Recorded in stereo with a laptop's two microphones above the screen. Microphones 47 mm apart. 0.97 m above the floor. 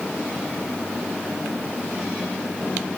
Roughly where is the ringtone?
I don't hear a ringtone.